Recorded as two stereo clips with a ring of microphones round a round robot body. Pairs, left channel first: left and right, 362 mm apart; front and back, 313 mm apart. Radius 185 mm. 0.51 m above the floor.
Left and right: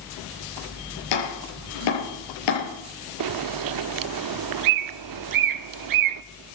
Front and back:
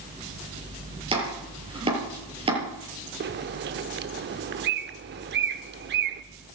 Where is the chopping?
105° left, 7.5 m.